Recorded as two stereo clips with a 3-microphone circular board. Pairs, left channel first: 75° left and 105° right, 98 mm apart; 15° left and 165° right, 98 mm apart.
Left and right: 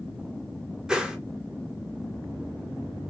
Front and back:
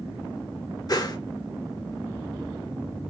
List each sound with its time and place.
0.9 s a whoosh: 25° right, 0.5 m